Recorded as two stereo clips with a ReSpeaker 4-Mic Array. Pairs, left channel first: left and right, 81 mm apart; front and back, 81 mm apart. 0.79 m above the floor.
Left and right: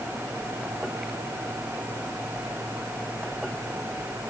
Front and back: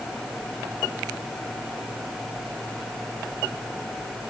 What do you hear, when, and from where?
Only background noise.